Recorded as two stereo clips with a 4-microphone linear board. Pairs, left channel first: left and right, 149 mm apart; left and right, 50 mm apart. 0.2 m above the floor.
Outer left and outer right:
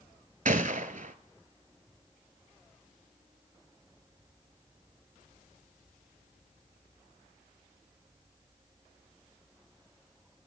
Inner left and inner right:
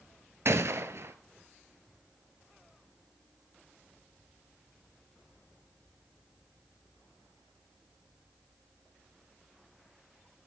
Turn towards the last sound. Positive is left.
turn(degrees=-65)  # may be behind; listen again after turning